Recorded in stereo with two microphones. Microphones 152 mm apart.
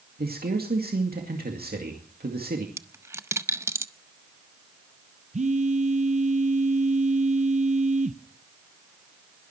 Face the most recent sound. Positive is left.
turn(degrees=-50)  # may be behind; listen again after turning